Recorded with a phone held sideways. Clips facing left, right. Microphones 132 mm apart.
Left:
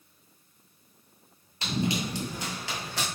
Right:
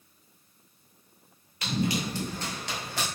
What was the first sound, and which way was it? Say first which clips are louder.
Running footsteps: even; 30° left (ahead or behind).